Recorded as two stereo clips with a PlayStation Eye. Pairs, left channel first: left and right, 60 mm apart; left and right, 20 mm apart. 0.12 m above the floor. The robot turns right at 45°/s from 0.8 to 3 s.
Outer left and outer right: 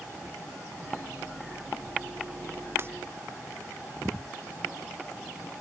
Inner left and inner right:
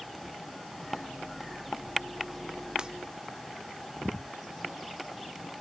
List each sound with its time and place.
2.8 s breaking glass: 40° right (ahead or behind); by 2.9 s 35° right (ahead or behind)